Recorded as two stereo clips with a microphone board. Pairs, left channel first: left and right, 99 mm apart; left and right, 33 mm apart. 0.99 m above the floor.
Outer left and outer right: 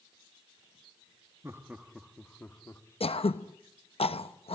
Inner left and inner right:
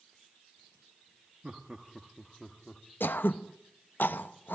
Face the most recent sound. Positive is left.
turn(degrees=75)  # may be behind; listen again after turning